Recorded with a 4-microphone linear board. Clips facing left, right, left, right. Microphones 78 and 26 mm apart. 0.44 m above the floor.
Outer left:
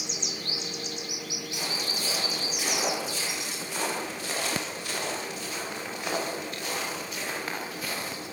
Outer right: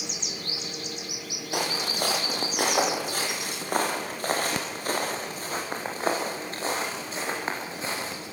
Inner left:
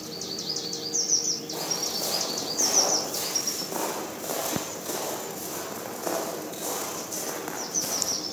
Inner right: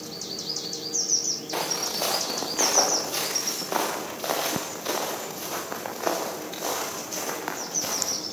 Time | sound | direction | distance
1.5 | footsteps | 60° right (ahead or behind) | 7 m